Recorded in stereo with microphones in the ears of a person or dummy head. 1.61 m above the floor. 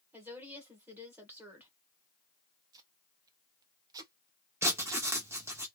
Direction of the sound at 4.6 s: 10° right (ahead or behind).